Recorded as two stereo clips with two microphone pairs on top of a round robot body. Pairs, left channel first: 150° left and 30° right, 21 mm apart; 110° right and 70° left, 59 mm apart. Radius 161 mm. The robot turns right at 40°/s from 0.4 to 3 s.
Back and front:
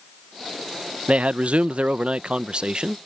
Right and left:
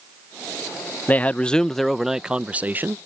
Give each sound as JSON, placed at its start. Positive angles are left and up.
{"t": 1.1, "sound": "a man speaking", "azimuth_deg": -50}